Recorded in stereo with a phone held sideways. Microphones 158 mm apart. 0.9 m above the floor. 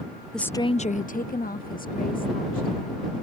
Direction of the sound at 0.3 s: Centre (ahead or behind).